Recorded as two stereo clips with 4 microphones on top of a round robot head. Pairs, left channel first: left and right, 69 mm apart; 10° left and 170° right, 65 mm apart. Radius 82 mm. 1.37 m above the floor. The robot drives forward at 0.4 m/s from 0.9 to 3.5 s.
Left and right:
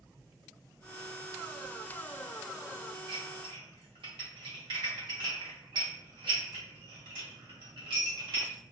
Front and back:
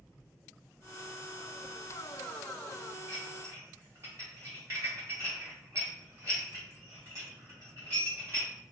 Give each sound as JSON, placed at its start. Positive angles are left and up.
{"t": 3.1, "sound": "dishes clattering", "azimuth_deg": -95, "distance_m": 0.6}